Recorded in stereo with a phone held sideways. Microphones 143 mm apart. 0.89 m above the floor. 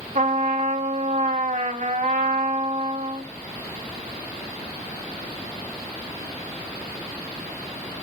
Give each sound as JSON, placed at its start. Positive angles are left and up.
{"t": 0.1, "sound": "a trumpet", "side_deg": -65, "distance_m": 2.0}